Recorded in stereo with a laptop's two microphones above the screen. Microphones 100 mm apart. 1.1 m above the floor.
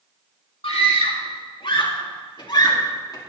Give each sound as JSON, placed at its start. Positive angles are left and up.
{"t": 0.6, "sound": "a scream", "side_deg": 70, "distance_m": 2.5}